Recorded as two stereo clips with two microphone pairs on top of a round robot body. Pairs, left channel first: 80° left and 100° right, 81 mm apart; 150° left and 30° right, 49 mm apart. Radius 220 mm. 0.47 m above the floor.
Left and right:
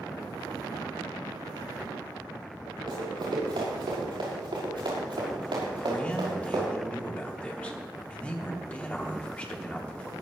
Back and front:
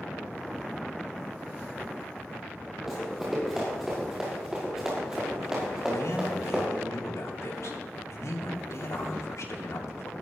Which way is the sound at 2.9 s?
115° right.